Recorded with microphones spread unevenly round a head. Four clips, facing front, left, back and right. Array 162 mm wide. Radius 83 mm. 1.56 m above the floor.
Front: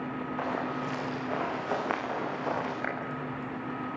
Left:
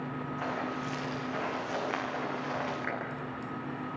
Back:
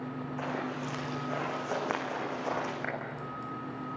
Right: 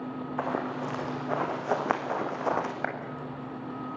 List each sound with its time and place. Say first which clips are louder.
0.4 s running footsteps: right 5 dB, front 3 dB; 75° right, 6 m; by 2.7 s 85° right, 5.5 m
2.8 s a clap: right 4 dB, front 3 dB; 80° right, 8 m